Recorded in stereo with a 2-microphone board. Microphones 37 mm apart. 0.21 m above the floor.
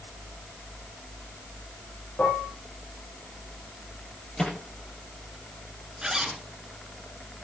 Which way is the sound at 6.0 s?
15° right (ahead or behind).